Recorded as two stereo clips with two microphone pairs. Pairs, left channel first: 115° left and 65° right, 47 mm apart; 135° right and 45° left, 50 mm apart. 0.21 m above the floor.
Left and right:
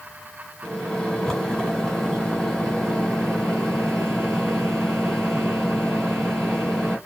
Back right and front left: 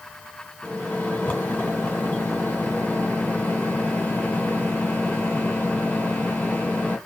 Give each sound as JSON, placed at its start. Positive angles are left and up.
{"t": 0.6, "sound": "a microwave", "azimuth_deg": -165, "distance_m": 1.5}